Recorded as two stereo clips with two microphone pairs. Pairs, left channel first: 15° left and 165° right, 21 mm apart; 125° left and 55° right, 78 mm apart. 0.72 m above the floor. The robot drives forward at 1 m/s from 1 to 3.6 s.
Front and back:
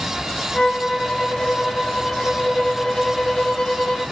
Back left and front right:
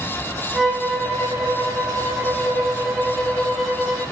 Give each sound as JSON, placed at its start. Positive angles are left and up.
{"t": 0.5, "sound": "a violin", "azimuth_deg": 35, "distance_m": 9.0}